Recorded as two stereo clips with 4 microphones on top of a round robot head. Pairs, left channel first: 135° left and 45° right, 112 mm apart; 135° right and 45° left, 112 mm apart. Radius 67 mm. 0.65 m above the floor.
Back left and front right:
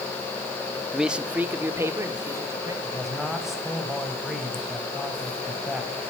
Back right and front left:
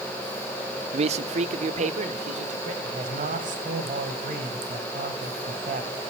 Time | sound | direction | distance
0.9 | a man speaking | 40° left | 0.9 m
2.8 | a man speaking | 45° left | 3.5 m